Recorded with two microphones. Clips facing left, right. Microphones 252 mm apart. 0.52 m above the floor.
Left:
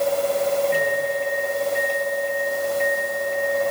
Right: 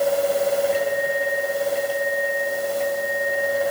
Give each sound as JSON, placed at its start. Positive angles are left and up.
{"t": 0.7, "sound": "a microwave", "side_deg": 85, "distance_m": 7.5}